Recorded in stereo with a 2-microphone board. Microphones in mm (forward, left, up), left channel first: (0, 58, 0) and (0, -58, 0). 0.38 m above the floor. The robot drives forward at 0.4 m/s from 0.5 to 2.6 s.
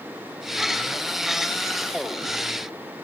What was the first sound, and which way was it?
Only background noise.